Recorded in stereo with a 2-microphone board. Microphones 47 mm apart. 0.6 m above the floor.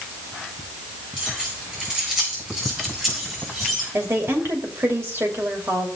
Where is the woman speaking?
70° right (ahead or behind), 2.5 m.